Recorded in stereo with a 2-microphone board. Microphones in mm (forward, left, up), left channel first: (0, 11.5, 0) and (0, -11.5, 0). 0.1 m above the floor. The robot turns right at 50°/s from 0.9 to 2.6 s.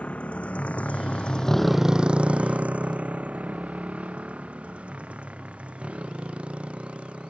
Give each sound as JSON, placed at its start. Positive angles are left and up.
{"t": 0.0, "sound": "a motorcycle", "side_deg": 65}